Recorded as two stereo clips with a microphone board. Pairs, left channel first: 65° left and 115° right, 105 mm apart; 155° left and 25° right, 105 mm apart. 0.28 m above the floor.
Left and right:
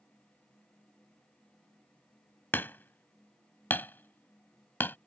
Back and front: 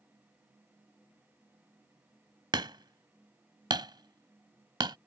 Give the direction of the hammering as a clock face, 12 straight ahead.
12 o'clock.